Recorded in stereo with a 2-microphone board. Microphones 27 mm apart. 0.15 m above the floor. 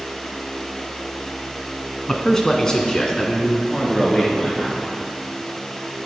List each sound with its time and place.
2.1 s a man speaking: 15° left (ahead or behind), 1.2 m; by 4.8 s 20° left (ahead or behind), 2.5 m